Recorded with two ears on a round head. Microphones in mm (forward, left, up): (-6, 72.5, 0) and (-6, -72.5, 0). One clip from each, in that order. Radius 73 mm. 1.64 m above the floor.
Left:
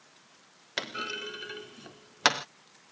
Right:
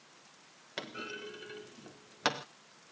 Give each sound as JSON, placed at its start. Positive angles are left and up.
{"t": 0.8, "sound": "a clunk", "side_deg": 45}